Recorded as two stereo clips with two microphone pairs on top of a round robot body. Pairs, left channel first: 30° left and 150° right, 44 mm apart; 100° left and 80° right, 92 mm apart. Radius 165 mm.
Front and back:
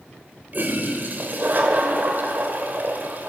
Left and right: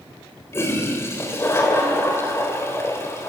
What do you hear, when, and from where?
0.5 s a toilet flushing: 165° left, 3 m